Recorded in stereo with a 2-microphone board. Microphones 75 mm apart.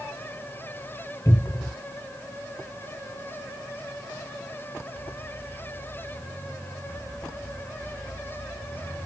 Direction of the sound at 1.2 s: 35° left (ahead or behind).